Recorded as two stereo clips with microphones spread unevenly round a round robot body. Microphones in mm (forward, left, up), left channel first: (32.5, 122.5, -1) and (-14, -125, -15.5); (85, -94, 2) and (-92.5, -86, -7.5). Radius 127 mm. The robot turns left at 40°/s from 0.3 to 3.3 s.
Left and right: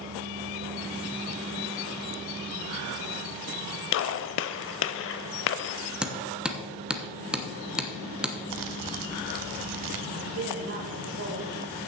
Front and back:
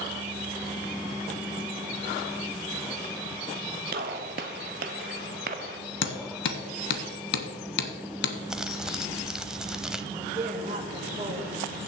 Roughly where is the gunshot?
Behind left.